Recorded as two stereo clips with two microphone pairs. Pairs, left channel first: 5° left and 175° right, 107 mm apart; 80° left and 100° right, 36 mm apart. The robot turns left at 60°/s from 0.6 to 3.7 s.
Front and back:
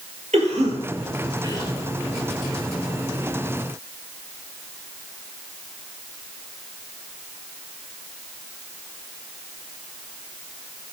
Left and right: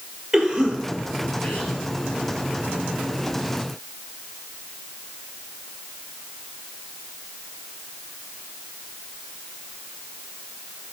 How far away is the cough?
About 5.5 m.